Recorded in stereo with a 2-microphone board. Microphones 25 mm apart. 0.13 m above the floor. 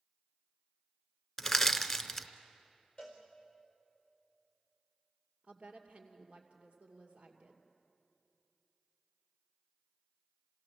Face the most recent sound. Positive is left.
turn(degrees=-60)  # may be behind; listen again after turning